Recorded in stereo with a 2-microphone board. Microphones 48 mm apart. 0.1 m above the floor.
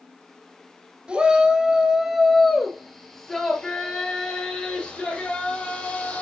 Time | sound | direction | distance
1.1 | a shout | 20° right (ahead or behind) | 1.6 m